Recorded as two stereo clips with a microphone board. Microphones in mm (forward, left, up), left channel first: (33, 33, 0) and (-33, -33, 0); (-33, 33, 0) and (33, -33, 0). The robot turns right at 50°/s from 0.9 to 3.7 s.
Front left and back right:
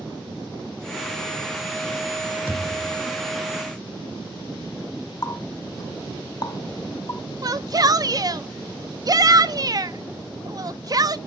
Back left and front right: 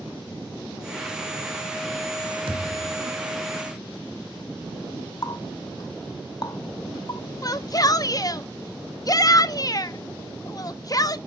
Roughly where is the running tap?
Left.